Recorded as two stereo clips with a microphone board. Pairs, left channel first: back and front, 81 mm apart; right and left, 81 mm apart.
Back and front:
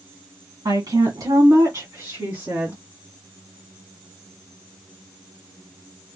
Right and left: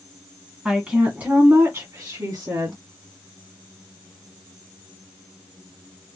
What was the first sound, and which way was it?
A woman speaking, 10° left.